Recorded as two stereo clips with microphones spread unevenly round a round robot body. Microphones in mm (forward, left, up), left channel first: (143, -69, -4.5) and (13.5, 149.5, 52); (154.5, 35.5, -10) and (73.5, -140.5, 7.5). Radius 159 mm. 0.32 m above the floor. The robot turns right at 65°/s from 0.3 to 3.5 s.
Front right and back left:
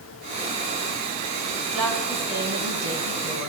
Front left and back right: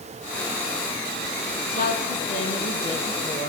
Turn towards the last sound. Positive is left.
turn(degrees=140)